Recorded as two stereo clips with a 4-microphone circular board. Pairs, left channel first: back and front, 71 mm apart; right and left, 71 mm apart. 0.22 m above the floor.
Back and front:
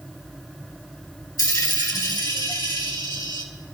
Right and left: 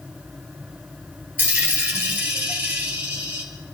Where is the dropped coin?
155° left, 2.5 m.